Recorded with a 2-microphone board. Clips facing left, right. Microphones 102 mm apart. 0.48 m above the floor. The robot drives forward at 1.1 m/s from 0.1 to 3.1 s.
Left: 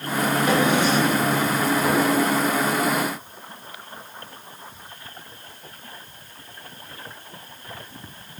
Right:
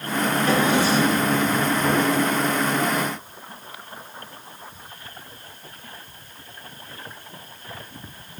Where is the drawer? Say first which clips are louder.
Even; 20° left (ahead or behind), 4 m; by 1.4 s 15° left (ahead or behind), 5 m.